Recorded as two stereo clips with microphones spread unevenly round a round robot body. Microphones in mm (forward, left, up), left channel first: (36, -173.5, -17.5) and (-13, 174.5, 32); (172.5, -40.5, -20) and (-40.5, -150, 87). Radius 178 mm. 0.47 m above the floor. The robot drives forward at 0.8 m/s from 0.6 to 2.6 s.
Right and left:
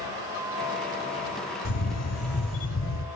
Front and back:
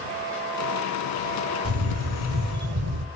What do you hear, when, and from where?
1.6 s a camera shutter: 115° right, 2.0 m; by 3.0 s 130° right, 2.5 m